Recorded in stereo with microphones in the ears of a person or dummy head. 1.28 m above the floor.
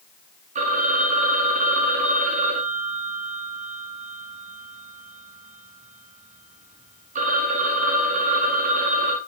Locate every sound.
0.6 s a phone ringing: 50° right (ahead or behind), 1.6 m